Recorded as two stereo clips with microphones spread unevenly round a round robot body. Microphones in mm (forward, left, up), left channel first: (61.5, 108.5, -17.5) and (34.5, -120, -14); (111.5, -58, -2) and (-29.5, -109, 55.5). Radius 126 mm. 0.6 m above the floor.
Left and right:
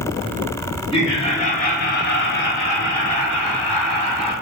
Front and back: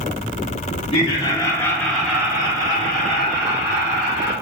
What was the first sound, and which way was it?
Laughter, 15° left.